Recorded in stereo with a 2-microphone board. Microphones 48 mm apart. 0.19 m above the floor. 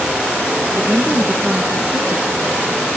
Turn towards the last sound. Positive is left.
turn(degrees=-40)  # may be behind; listen again after turning